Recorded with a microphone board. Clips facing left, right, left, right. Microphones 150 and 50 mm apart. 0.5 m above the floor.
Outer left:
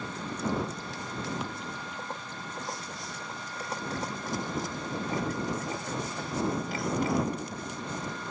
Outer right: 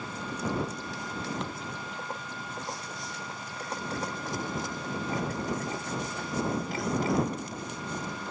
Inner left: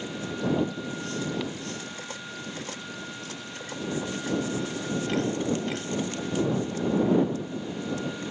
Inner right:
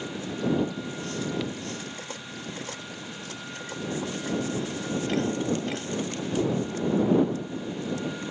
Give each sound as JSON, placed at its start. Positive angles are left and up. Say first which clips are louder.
{"t": 1.4, "sound": "a thud", "louder": "even, inner right 1 dB", "side_deg": 5}